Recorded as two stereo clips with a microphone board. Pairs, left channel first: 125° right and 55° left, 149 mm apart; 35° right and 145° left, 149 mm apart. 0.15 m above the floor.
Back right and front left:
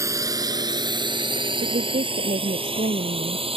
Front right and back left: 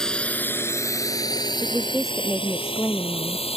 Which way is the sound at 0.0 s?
45° left.